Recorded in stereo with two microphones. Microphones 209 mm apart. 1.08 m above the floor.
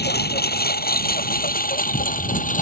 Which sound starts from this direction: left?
A lawn mower, at 0.0 s.